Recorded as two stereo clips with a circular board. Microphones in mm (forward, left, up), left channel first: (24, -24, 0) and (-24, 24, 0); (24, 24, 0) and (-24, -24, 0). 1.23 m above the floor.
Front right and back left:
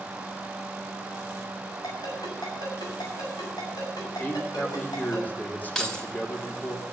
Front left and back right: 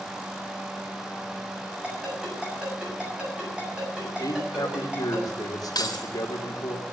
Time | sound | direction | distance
1.8 | a ringtone | 60° right | 7 m
4.2 | a man speaking | 20° left | 3 m
5.8 | keys jangling | 35° left | 2.5 m